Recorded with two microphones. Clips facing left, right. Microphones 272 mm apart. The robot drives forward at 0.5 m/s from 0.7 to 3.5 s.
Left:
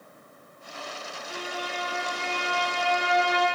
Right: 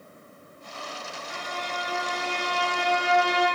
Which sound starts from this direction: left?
A violin, at 1.3 s.